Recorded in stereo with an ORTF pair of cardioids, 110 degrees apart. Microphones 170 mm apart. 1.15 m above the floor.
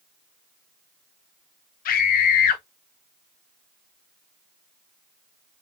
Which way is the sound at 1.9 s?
60° left.